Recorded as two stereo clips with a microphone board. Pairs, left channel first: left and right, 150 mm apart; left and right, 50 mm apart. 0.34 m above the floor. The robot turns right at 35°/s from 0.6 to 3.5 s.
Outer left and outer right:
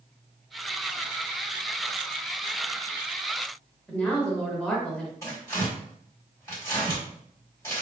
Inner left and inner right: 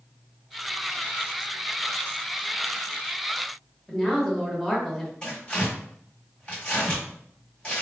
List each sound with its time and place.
3.9 s a woman speaking: 5° left (ahead or behind), 0.8 m
5.2 s tearing paper: 20° left (ahead or behind), 1.8 m